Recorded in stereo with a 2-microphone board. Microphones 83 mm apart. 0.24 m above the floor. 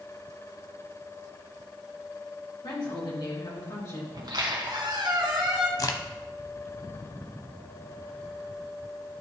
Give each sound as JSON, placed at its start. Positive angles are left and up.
{"t": 2.6, "sound": "a woman speaking", "side_deg": 65, "distance_m": 3.0}
{"t": 4.1, "sound": "a squeak", "side_deg": -60, "distance_m": 1.6}
{"t": 5.8, "sound": "a crack", "side_deg": 45, "distance_m": 0.7}